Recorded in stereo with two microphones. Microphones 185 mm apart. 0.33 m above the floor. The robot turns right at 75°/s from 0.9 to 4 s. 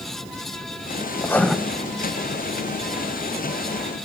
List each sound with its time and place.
1.2 s writing: 20° left (ahead or behind), 1.2 m; by 1.6 s centre (ahead or behind), 1.2 m